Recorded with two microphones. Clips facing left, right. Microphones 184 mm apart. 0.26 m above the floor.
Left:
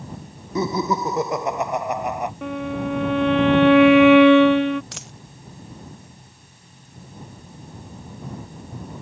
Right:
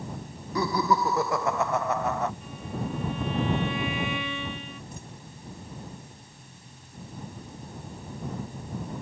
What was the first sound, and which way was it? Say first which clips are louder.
Laughter: left 3 dB; 20° left (ahead or behind).